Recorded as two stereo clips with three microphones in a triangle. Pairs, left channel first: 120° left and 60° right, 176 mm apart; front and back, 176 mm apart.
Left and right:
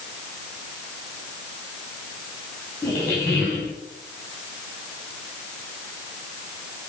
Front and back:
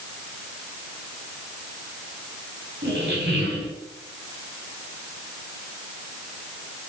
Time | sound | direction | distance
2.8 | a squeak | 160° right | 4.5 m